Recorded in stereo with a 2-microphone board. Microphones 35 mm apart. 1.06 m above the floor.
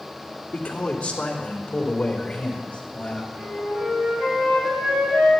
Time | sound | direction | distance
0.5 | a man speaking | 35° left (ahead or behind) | 2.5 m
3.3 | a flute | 40° right (ahead or behind) | 5.5 m